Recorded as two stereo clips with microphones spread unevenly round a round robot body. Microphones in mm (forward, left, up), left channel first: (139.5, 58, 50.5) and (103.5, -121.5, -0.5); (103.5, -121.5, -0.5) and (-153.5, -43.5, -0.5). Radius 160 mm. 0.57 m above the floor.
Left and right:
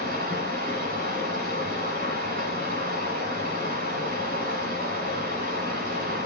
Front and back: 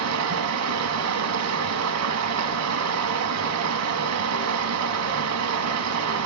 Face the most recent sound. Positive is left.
turn(degrees=-165)